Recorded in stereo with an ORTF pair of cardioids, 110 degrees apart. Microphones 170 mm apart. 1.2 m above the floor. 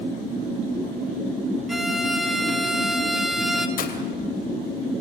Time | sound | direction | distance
1.7 | a violin | straight ahead | 2 m
3.8 | breaking glass | 55° left | 3 m